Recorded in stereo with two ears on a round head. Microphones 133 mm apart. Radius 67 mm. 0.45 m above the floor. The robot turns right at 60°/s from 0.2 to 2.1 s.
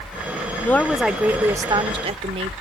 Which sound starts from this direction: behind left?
A woman speaking, at 0.6 s.